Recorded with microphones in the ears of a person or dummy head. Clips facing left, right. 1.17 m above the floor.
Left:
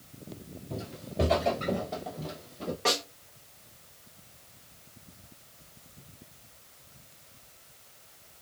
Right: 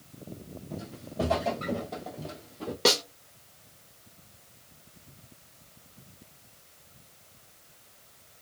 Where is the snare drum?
50° right (ahead or behind), 0.7 m.